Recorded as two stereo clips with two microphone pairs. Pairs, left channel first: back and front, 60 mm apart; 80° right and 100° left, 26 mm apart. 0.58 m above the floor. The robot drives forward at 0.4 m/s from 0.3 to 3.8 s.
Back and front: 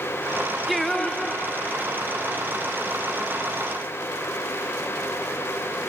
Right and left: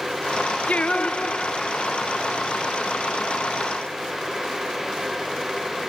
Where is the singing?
95° right, 0.6 m; by 2.2 s 140° right, 0.9 m.